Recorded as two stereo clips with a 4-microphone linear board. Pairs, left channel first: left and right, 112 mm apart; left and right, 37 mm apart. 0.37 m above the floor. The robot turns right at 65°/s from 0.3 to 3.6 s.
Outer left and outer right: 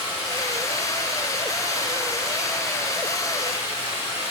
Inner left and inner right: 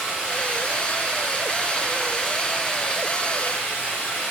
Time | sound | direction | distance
0.0 | running water | 140° right | 3.5 m